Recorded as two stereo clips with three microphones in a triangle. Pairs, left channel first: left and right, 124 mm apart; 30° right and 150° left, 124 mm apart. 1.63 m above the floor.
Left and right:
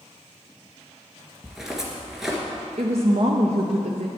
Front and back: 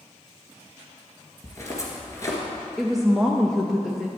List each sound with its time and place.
1.4 s footsteps: 10° right, 1.7 m
2.8 s a woman speaking: 120° right, 0.7 m